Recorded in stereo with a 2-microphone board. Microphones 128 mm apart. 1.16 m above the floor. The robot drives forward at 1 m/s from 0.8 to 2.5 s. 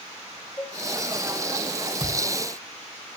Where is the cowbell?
15° left (ahead or behind), 1.4 m.